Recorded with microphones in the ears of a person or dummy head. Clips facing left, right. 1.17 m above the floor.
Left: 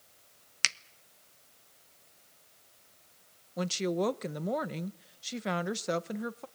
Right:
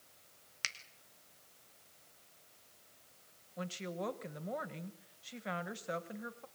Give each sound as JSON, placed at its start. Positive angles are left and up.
{"t": 0.6, "sound": "a finger snap", "side_deg": 65, "distance_m": 1.0}
{"t": 3.6, "sound": "a woman speaking", "side_deg": 55, "distance_m": 1.0}